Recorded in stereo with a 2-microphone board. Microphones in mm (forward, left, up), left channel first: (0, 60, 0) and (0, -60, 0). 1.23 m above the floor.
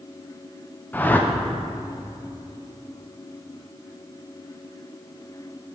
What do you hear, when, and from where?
0.9 s a whoosh: 15° left (ahead or behind), 0.6 m